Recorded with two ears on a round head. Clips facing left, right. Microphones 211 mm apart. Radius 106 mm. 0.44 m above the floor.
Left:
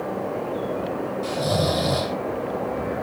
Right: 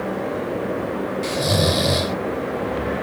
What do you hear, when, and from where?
1.2 s snoring: 35° right (ahead or behind), 1.1 m